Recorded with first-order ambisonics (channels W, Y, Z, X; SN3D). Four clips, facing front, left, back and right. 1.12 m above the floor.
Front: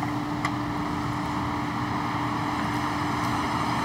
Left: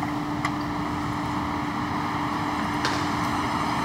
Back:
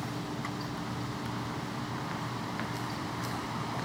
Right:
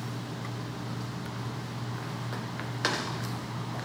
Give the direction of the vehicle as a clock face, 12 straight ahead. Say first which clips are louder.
Left 11 dB, front 9 dB; 10 o'clock.